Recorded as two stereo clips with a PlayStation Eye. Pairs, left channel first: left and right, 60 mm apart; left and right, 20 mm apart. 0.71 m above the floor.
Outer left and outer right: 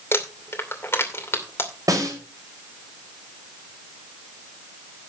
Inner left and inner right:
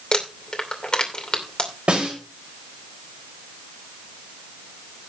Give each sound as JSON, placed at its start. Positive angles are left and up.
{"t": 0.1, "sound": "crumpling", "side_deg": 40, "distance_m": 2.5}
{"t": 1.9, "sound": "a snare drum", "side_deg": -65, "distance_m": 4.0}